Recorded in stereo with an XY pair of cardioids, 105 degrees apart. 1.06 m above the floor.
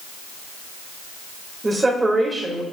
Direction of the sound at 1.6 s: 20° right.